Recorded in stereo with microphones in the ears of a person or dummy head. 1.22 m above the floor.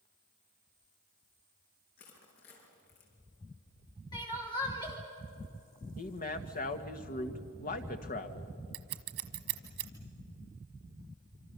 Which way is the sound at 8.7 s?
55° right (ahead or behind).